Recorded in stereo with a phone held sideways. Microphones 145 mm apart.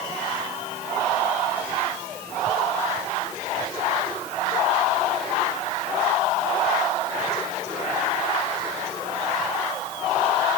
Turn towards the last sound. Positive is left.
No sound to turn to.